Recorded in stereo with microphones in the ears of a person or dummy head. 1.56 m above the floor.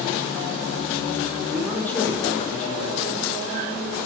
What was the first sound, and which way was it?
A man speaking, 5° right (ahead or behind).